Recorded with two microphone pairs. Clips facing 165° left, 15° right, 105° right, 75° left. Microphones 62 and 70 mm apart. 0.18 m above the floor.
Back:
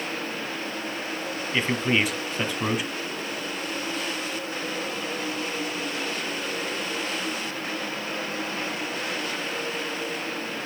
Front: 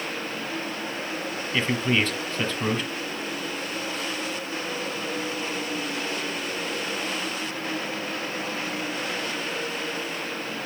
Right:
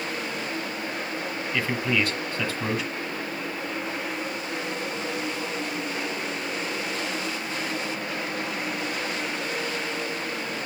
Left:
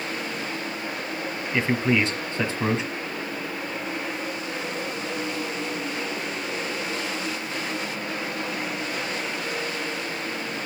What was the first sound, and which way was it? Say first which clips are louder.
A man speaking: even, left 4 dB; 100° left.